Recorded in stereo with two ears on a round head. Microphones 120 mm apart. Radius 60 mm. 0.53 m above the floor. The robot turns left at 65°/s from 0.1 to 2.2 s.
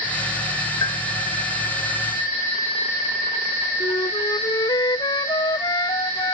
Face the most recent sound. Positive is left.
turn(degrees=30)  # may be behind; listen again after turning